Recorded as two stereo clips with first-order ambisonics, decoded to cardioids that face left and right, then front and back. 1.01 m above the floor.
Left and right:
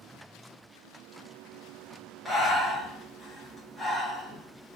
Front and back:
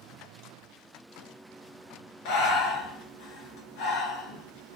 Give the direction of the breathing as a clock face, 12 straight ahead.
12 o'clock.